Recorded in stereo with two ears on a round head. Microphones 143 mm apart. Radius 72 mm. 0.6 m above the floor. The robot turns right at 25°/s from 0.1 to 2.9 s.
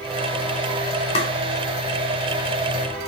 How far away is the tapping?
About 2 m.